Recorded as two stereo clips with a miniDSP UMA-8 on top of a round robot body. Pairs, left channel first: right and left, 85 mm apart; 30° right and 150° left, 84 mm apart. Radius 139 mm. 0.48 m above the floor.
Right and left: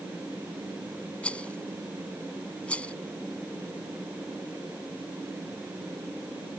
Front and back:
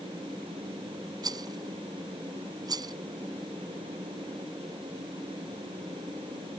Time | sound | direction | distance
1.2 | a rattle | 165° right | ?